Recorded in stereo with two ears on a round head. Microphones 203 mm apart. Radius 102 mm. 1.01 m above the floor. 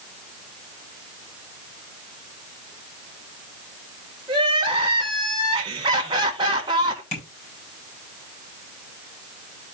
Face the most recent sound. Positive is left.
turn(degrees=30)  # may be behind; listen again after turning